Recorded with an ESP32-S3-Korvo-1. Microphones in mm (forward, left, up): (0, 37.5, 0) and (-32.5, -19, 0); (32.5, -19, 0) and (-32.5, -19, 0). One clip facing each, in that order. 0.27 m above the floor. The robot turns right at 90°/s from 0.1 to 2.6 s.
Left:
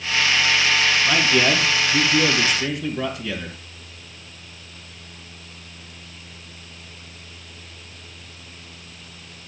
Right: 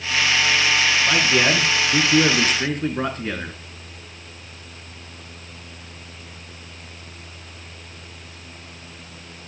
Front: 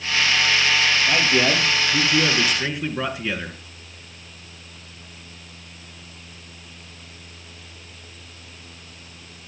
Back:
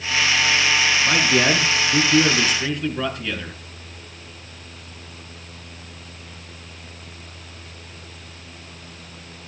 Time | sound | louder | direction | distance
1.1 | a man speaking | even, back 2 dB | 150° left | 3.5 m